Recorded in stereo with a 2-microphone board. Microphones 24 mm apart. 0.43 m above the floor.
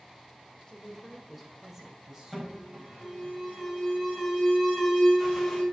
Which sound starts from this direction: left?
A woman speaking, at 0.7 s.